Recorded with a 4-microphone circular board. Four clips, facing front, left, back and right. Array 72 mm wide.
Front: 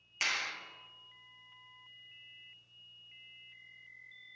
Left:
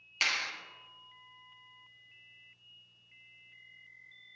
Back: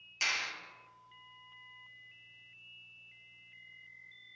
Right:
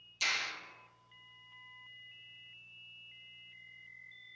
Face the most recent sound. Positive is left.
turn(degrees=75)